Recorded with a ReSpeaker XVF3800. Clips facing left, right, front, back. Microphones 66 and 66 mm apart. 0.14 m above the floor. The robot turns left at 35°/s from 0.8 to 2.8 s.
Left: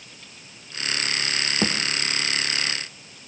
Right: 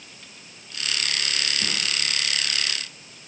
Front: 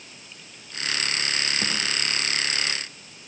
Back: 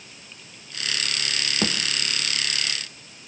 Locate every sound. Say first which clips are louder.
1.6 s a thud: left 6 dB, back 3 dB; 120° left, 3 m; by 1.8 s 115° left, 3 m